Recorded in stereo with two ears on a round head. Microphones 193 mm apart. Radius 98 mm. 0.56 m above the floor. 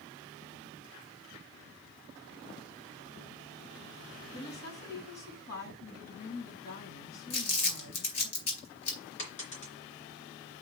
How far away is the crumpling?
About 4.5 m.